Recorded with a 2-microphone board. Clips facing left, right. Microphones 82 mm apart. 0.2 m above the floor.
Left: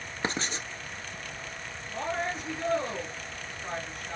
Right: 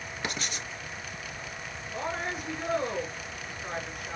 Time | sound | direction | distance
0.2 | writing | 30° left (ahead or behind) | 0.7 m
1.9 | a woman speaking | 10° right (ahead or behind) | 2.5 m